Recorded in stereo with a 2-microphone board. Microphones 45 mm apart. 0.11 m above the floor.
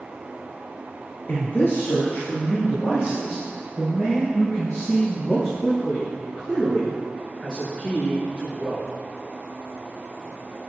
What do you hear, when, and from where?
1.3 s a man speaking: 45° left (ahead or behind), 1.9 m; by 8.9 s 30° left (ahead or behind), 8.5 m